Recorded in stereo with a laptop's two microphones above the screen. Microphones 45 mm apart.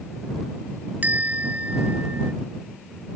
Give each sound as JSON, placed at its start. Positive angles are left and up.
{"t": 1.0, "sound": "a bell", "side_deg": -35}